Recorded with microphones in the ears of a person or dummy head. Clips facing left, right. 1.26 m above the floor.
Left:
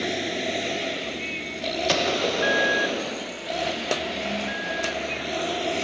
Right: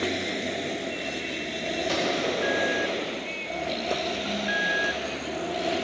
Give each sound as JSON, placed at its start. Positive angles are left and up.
{"t": 1.9, "sound": "a gunshot", "side_deg": 70, "distance_m": 1.1}